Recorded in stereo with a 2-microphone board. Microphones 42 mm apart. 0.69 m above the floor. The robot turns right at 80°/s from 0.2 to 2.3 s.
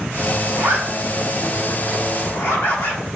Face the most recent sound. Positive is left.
turn(degrees=55)  # may be behind; listen again after turning